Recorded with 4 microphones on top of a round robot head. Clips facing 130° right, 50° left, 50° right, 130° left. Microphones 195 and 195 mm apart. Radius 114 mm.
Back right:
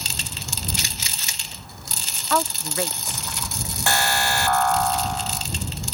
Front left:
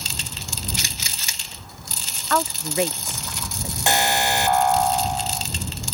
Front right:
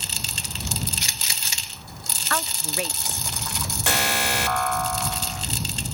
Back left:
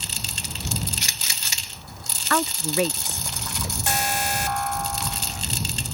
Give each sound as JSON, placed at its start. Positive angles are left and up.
{"t": 2.3, "sound": "a woman speaking", "azimuth_deg": 145}
{"t": 3.9, "sound": "an alarm", "azimuth_deg": -20}